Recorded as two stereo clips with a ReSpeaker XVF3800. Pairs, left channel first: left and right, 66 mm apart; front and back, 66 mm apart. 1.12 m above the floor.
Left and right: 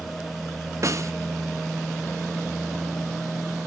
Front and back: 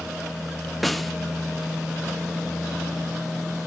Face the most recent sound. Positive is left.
turn(degrees=-90)